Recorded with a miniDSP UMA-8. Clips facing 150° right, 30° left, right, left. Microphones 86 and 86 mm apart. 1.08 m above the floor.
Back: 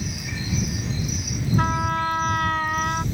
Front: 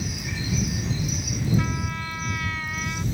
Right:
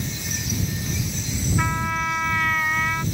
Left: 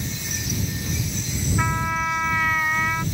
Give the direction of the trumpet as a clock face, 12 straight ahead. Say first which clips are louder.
Back 6 dB, left 1 dB; 6 o'clock.